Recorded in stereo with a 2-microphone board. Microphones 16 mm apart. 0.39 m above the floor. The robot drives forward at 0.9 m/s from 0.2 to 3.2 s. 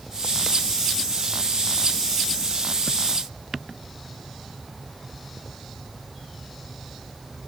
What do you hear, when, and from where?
Only background noise.